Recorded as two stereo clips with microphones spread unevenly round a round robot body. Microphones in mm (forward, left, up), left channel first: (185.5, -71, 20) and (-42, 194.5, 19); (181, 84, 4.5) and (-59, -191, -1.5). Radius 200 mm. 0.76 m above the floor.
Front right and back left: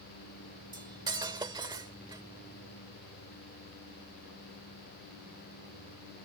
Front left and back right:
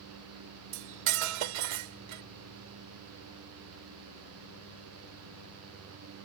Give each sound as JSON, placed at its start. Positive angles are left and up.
{"t": 0.7, "sound": "cutlery clinking", "azimuth_deg": -150}